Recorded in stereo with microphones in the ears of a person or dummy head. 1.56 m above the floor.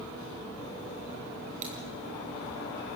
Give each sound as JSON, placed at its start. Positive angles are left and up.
{"t": 1.6, "sound": "breaking glass", "side_deg": -40, "distance_m": 5.5}